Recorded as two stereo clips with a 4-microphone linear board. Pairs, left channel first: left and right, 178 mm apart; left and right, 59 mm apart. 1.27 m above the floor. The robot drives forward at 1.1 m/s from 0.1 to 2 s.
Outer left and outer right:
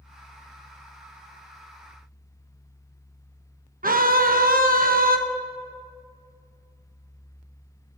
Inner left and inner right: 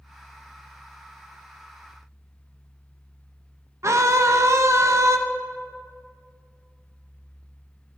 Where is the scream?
55° right (ahead or behind), 0.9 m.